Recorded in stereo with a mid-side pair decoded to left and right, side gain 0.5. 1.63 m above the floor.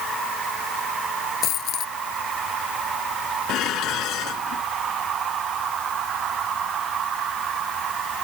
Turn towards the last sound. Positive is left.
turn(degrees=70)